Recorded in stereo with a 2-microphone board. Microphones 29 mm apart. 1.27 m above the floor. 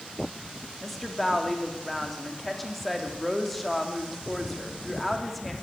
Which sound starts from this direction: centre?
A woman speaking, at 0.8 s.